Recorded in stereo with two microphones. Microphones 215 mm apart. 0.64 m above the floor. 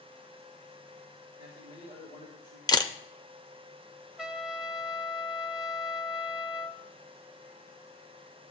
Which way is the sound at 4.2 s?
5° right (ahead or behind).